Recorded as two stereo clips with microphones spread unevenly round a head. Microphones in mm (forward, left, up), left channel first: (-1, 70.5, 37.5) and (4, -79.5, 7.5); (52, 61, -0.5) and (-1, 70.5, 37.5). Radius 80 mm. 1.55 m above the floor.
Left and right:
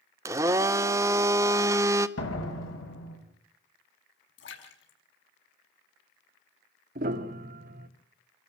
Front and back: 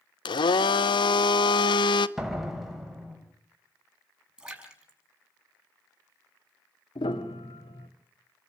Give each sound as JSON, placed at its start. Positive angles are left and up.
{"t": 0.2, "sound": "a blender", "azimuth_deg": -10, "distance_m": 0.8}
{"t": 2.2, "sound": "a door slam", "azimuth_deg": 90, "distance_m": 5.5}
{"t": 4.4, "sound": "a splash", "azimuth_deg": 100, "distance_m": 6.0}
{"t": 7.0, "sound": "a piano", "azimuth_deg": -45, "distance_m": 1.9}